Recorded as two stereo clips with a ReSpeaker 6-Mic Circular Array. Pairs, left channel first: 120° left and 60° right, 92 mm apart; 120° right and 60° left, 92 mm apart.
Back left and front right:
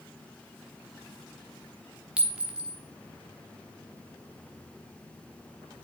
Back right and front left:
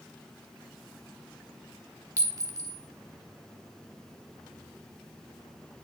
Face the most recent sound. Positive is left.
turn(degrees=15)